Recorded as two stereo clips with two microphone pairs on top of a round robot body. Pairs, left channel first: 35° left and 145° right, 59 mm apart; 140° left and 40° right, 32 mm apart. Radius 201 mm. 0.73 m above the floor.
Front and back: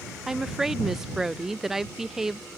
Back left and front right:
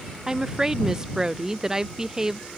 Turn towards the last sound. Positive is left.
turn(degrees=-100)